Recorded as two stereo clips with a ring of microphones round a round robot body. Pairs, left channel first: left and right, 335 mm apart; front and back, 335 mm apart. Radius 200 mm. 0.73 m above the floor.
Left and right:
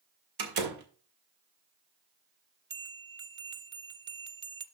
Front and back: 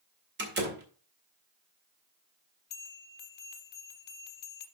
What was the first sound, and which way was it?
A door slam, 120° right.